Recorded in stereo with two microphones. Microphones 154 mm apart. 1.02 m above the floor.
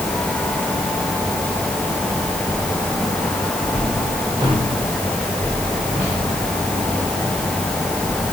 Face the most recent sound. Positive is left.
No sound to turn to.